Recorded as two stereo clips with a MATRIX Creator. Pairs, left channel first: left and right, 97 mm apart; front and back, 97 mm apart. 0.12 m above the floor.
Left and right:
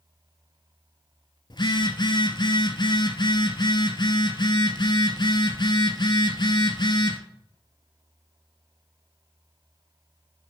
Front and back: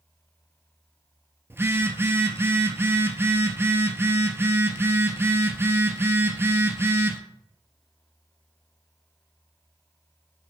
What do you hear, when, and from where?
1.5 s a phone buzzing: 120° left, 0.7 m